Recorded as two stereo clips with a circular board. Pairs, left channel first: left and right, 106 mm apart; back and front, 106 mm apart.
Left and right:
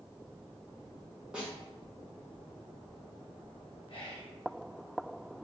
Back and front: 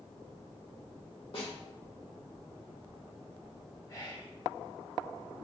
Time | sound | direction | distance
1.3 | a snare drum | 170° right | 1.2 m
3.9 | whispering | 120° left | 1.3 m